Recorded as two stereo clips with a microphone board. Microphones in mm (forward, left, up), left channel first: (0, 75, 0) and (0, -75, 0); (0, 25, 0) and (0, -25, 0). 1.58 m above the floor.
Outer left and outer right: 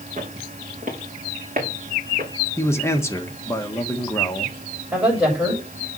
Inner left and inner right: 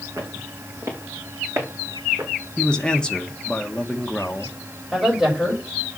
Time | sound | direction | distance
0.2 | footsteps | 55° right (ahead or behind) | 4 m
2.6 | a man speaking | 15° left (ahead or behind) | 1.5 m
4.9 | a woman speaking | 10° right (ahead or behind) | 5.5 m